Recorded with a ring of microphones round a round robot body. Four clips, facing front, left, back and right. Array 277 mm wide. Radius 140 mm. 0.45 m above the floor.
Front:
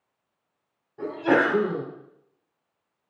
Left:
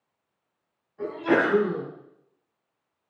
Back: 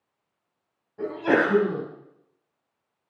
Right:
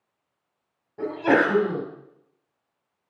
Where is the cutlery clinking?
I don't hear cutlery clinking.